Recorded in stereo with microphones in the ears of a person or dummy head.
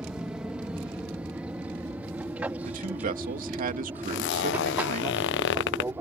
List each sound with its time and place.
0.0 s an aircraft: 5° right (ahead or behind); by 6.0 s 10° right (ahead or behind)
2.6 s a man speaking: 50° right (ahead or behind)
4.0 s a zipper: 65° left (ahead or behind)